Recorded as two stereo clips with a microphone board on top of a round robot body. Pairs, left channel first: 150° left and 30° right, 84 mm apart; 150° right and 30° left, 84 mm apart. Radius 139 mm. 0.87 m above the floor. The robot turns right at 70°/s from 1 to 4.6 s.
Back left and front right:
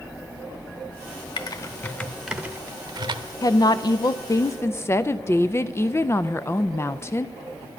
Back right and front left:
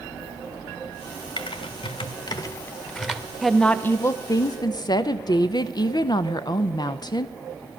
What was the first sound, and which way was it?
Typing on a keyboard, 175° right.